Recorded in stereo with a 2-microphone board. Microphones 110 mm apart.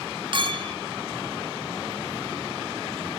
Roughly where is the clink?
Right.